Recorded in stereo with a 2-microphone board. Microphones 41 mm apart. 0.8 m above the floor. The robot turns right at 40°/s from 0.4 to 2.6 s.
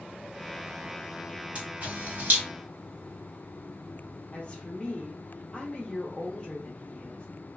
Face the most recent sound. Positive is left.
turn(degrees=25)  # may be behind; listen again after turning